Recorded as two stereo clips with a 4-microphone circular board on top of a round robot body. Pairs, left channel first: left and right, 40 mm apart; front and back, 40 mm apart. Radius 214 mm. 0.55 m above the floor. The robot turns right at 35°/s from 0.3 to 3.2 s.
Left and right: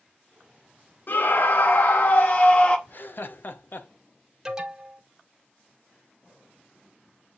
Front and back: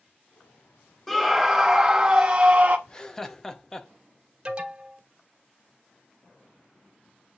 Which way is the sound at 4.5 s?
150° right.